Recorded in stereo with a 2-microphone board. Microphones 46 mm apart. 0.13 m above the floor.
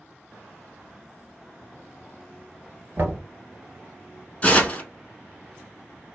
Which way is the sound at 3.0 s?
40° right (ahead or behind).